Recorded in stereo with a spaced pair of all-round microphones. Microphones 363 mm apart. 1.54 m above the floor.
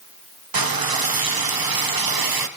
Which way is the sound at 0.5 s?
70° right (ahead or behind).